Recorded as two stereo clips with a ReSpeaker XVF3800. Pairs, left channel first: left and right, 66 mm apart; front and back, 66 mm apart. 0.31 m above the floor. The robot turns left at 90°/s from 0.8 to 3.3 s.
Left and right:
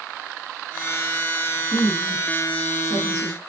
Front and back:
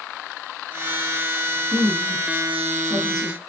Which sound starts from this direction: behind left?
A woman speaking, at 1.7 s.